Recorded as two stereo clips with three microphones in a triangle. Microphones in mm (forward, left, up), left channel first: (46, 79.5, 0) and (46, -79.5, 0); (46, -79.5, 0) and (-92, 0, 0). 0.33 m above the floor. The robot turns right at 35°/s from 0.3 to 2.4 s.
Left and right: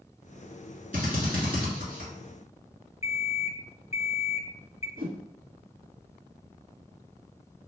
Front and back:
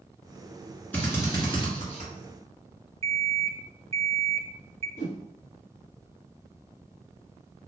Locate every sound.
0.9 s a drill: 110° right, 1.9 m; by 2.1 s 65° right, 1.9 m
3.0 s an alarm clock: 120° left, 0.5 m
5.0 s a whoosh: 70° right, 0.7 m